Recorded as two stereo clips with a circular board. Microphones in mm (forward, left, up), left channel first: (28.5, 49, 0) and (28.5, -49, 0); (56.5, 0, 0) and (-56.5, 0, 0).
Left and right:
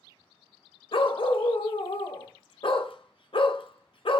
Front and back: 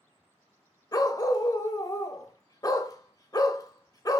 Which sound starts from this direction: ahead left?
A dog barking, at 0.9 s.